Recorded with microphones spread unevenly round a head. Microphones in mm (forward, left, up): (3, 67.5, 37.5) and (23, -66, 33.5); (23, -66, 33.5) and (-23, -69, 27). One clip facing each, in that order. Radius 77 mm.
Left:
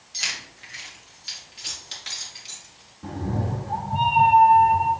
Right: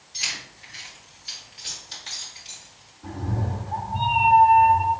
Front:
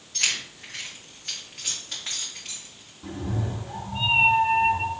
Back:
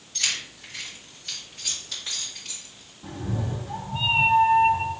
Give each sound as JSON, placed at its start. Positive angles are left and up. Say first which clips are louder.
{"t": 0.1, "sound": "keys jangling", "louder": "left 1 dB, front 2 dB", "azimuth_deg": 60, "distance_m": 3.0}
{"t": 3.0, "sound": "a cat meowing", "louder": "left 2 dB, even", "azimuth_deg": 85, "distance_m": 1.3}